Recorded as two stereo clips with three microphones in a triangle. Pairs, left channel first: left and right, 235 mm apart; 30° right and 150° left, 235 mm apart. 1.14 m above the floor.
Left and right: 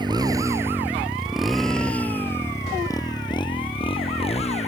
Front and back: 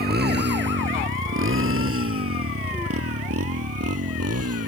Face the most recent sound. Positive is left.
turn(degrees=150)